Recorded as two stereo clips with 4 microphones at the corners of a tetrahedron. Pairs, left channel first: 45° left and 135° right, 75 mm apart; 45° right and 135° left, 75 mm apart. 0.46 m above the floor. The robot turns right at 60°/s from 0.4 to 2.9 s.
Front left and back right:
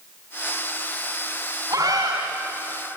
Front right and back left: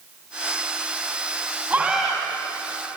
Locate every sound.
1.7 s a scream: 160° right, 3.5 m; by 2.2 s 130° right, 3.5 m